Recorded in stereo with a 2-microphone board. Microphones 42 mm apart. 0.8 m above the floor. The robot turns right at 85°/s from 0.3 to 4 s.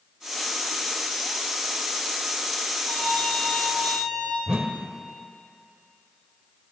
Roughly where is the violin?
Left.